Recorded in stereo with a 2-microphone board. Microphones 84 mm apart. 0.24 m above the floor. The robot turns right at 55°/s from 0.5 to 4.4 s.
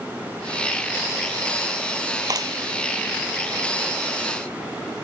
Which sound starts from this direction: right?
A clap, at 2.3 s.